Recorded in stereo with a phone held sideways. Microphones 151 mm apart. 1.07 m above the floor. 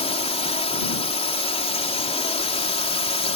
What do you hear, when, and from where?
0.0 s a drone: 40° left (ahead or behind)